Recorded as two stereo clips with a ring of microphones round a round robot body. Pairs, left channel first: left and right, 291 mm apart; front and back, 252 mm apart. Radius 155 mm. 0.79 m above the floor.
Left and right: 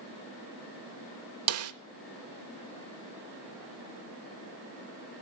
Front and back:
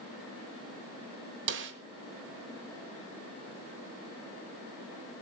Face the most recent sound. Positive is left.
turn(degrees=-130)